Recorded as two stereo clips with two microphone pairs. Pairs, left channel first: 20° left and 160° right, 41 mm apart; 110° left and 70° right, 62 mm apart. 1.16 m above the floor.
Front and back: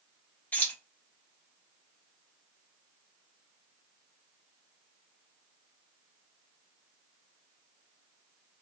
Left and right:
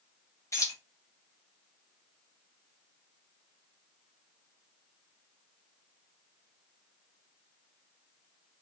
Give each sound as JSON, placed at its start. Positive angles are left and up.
{"t": 0.5, "sound": "keys jangling", "azimuth_deg": 70, "distance_m": 1.0}